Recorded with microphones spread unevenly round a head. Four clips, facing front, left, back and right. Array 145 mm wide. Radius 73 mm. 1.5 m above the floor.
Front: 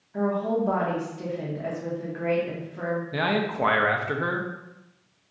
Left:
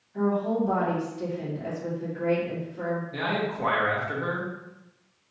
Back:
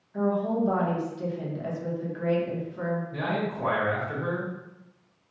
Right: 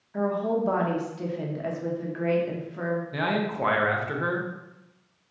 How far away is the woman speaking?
About 0.8 m.